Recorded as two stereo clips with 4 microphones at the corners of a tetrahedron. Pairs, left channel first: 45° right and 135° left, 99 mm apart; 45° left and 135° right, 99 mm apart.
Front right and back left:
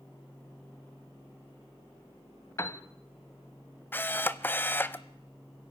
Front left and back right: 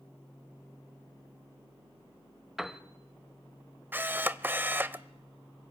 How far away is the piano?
About 1.1 m.